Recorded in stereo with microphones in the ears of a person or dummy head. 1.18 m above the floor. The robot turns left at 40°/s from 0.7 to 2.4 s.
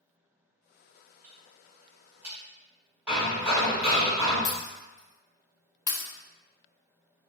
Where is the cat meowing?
No cat meowing in this recording.